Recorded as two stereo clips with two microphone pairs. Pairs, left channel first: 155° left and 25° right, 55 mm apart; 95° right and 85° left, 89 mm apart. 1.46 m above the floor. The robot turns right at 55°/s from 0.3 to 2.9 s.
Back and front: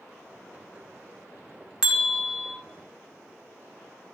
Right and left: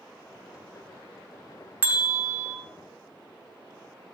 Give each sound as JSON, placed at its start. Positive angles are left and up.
{"t": 1.8, "sound": "a bell", "azimuth_deg": 40, "distance_m": 0.9}